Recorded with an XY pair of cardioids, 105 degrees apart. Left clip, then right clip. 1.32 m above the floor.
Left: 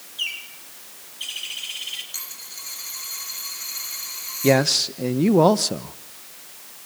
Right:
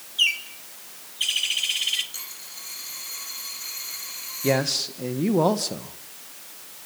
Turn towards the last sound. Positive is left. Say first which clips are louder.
# left 5 dB
turn(degrees=35)